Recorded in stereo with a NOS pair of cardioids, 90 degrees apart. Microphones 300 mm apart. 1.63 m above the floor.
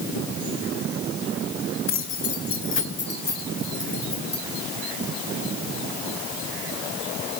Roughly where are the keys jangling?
Ahead left.